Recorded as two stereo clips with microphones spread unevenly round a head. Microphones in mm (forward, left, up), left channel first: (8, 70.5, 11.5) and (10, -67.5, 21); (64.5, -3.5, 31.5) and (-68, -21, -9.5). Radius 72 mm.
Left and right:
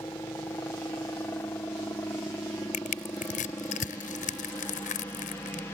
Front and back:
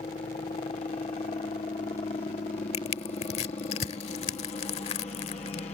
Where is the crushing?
55° left.